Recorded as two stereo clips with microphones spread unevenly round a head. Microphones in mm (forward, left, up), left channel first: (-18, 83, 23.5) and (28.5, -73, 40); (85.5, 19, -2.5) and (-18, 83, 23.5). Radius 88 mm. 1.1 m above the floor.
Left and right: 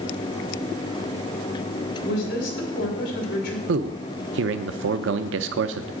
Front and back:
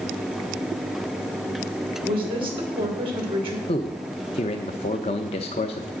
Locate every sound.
2.0 s a woman speaking: 100° left, 3 m
3.7 s a man speaking: 85° right, 0.5 m